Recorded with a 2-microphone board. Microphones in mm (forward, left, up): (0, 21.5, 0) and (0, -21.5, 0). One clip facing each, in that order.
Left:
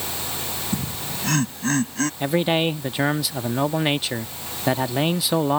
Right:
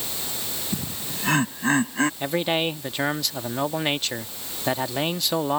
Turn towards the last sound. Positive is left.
turn(degrees=5)  # may be behind; listen again after turning